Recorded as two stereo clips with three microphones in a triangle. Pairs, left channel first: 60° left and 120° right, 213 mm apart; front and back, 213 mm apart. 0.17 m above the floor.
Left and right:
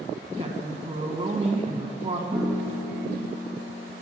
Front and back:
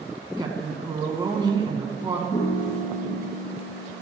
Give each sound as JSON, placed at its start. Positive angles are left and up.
{"t": 0.4, "sound": "a woman speaking", "azimuth_deg": -135, "distance_m": 1.1}
{"t": 2.3, "sound": "a piano", "azimuth_deg": -50, "distance_m": 1.0}